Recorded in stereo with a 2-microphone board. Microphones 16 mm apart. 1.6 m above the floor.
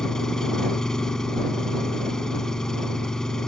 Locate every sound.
0.0 s an engine running: 50° left (ahead or behind)